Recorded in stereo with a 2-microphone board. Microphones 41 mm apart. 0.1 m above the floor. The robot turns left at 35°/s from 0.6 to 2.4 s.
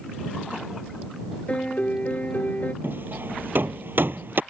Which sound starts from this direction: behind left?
A piano, at 1.5 s.